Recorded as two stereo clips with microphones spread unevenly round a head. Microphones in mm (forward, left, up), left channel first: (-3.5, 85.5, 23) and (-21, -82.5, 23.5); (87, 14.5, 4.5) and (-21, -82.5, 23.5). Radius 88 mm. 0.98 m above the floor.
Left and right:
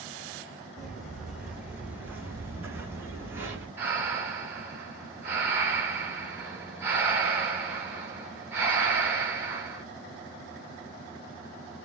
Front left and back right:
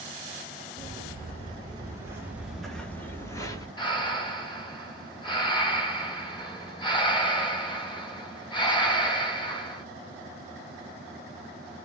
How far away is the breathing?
About 1.7 m.